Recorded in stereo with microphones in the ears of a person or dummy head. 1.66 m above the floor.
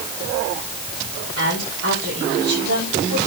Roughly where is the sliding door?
I don't hear a sliding door.